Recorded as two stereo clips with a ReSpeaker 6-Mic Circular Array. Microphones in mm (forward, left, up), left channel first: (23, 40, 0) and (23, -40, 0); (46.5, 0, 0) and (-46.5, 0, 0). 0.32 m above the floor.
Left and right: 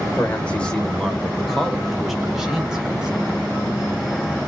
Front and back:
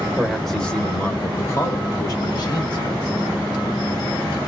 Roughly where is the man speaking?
Behind left.